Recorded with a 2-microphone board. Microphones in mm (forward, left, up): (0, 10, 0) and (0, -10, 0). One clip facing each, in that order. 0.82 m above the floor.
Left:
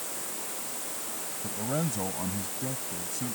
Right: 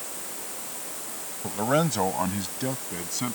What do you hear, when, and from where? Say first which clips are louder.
1.4 s a man speaking: right 8 dB; 55° right (ahead or behind)